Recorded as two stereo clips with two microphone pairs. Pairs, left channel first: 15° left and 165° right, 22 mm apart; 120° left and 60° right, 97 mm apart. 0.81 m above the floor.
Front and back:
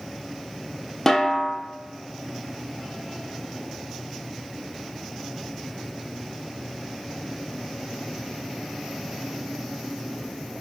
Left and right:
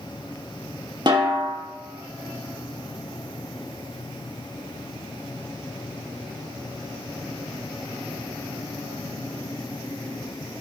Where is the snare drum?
55° right, 1.4 m.